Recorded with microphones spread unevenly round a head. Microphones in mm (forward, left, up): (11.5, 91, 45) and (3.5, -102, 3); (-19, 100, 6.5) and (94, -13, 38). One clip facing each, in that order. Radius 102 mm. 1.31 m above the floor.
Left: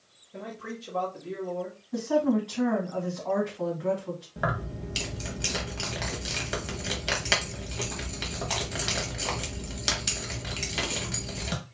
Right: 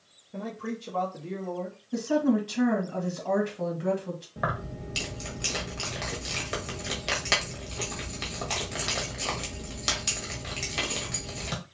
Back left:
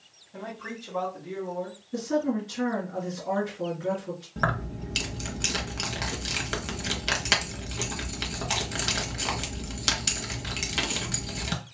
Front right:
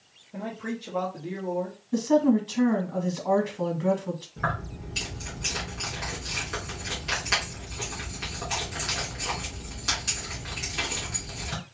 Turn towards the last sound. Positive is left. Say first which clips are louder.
# left 2 dB, back left 2 dB
turn(degrees=170)